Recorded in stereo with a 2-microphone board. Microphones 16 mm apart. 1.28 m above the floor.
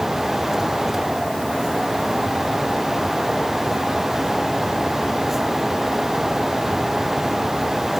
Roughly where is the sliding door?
I don't hear a sliding door.